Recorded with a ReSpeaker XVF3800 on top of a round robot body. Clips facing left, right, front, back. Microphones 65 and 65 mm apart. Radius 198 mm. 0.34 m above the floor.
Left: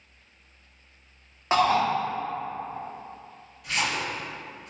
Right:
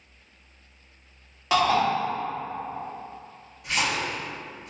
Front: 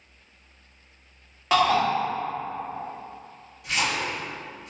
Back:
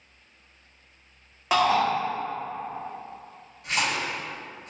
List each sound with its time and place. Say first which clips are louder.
1.5 s a shout: even, front 1 dB; 105° left, 0.9 m
3.6 s a splash: right 1 dB, even; 145° right, 1.8 m